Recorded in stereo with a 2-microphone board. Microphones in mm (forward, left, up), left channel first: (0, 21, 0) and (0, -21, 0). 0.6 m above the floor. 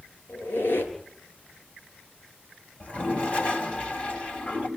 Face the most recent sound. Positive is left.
turn(degrees=35)  # may be behind; listen again after turning